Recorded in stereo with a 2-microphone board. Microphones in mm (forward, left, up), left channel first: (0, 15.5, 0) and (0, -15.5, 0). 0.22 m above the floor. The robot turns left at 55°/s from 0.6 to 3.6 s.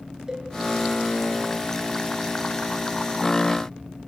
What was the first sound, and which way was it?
A cowbell, 15° right (ahead or behind).